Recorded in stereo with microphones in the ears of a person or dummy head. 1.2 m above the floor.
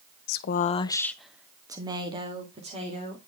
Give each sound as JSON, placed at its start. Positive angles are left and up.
{"t": 0.3, "sound": "a woman speaking", "side_deg": 65, "distance_m": 0.9}